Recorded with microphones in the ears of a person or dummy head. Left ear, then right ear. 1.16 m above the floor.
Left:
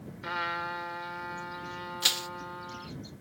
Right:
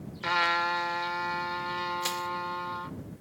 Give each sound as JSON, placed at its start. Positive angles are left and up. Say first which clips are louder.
{"t": 0.2, "sound": "a trumpet", "louder": "right 7 dB", "side_deg": -20}
{"t": 2.0, "sound": "crushing", "louder": "left 4 dB", "side_deg": 40}